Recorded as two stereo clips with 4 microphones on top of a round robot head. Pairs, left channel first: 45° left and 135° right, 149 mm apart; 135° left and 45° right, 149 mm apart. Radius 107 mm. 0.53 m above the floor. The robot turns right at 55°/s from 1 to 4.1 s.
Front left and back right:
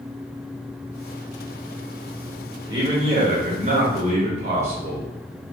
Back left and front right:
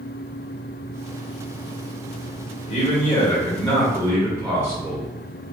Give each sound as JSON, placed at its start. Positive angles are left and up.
{"t": 2.7, "sound": "a man speaking", "azimuth_deg": 170, "distance_m": 1.2}